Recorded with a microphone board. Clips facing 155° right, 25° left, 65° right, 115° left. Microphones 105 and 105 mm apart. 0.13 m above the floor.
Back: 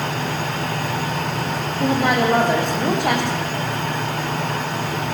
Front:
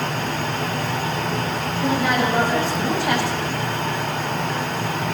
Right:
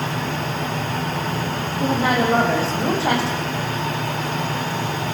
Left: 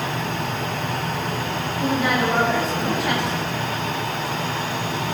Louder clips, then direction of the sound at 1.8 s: Back 2 dB, right 2 dB; 125° right.